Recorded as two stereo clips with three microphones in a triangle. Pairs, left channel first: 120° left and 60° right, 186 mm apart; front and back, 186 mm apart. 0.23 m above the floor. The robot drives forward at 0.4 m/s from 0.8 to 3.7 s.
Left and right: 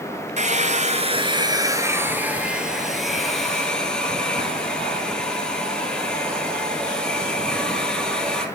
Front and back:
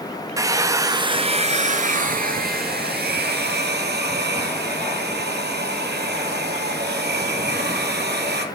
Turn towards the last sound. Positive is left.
turn(degrees=-155)